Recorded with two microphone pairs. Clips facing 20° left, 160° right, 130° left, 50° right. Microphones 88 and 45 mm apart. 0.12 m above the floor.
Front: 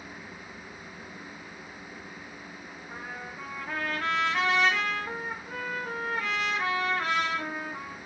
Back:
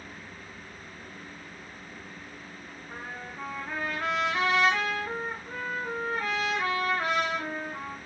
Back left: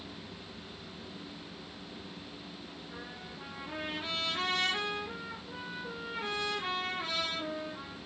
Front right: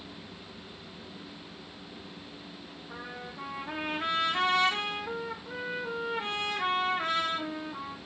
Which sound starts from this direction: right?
A trumpet, at 2.9 s.